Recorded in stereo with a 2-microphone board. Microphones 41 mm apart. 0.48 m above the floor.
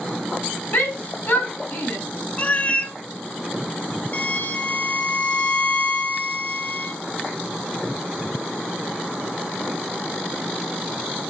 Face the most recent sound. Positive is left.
turn(degrees=45)  # may be behind; listen again after turning